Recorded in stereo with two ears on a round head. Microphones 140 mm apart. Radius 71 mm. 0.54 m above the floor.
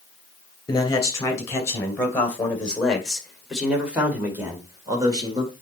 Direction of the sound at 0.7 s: 25° left (ahead or behind).